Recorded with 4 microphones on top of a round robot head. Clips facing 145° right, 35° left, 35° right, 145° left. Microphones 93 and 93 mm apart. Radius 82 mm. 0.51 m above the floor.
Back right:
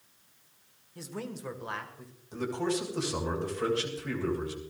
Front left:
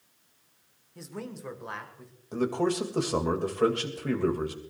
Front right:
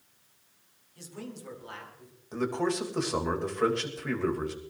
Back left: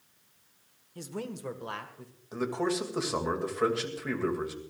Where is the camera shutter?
No camera shutter in this recording.